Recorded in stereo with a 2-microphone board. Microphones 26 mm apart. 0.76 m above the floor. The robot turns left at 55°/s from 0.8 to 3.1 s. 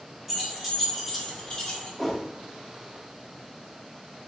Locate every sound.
0.3 s keys jangling: 10° right (ahead or behind), 1.1 m; by 1.9 s 50° left (ahead or behind), 1.1 m
2.0 s a whoosh: 5° right (ahead or behind), 1.0 m; by 2.2 s 15° right (ahead or behind), 1.0 m